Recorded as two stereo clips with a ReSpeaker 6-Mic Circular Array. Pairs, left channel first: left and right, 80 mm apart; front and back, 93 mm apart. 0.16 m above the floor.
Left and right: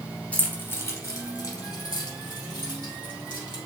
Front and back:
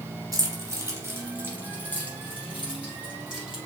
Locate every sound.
0.3 s keys jangling: 155° left, 1.1 m; by 3.6 s 100° left, 3.5 m